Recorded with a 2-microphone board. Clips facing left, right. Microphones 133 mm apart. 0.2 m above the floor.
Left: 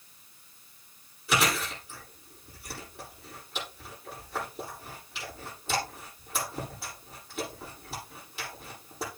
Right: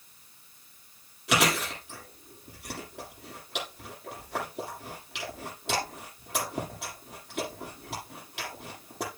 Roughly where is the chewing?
Right.